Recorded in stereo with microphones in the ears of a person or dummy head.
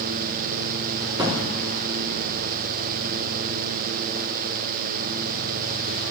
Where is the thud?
25° right (ahead or behind), 2 m.